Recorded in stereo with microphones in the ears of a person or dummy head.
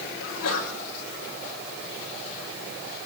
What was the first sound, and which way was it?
A sneeze, 80° left.